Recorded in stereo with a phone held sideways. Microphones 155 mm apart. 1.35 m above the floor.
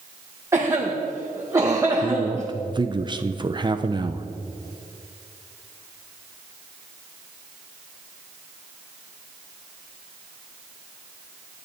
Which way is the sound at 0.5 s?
20° right (ahead or behind).